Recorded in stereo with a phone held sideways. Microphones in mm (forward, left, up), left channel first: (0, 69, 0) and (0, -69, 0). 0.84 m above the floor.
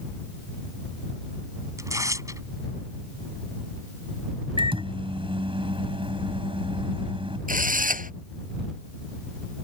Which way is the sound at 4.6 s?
40° right (ahead or behind).